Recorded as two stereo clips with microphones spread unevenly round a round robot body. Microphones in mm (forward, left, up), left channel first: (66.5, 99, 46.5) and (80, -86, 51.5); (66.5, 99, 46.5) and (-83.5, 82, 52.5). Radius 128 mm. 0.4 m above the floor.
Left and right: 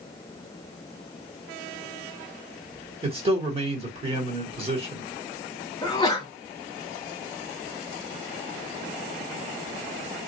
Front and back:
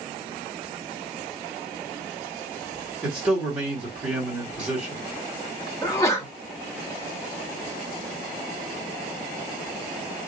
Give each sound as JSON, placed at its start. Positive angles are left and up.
{"t": 3.0, "sound": "a man speaking", "azimuth_deg": -95, "distance_m": 1.6}
{"t": 5.8, "sound": "a sneeze", "azimuth_deg": 50, "distance_m": 0.9}